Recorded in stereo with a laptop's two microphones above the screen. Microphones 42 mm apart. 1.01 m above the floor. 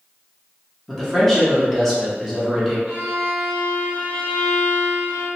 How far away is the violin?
About 1.5 m.